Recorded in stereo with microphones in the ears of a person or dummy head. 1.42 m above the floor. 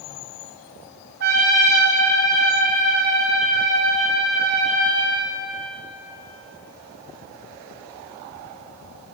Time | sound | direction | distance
1.2 | a trumpet | 70° right (ahead or behind) | 9.5 m